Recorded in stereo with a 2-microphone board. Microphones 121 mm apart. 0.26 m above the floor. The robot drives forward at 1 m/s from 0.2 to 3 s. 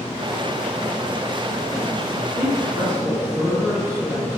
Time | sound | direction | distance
2.1 | a man speaking | 45° right (ahead or behind) | 4 m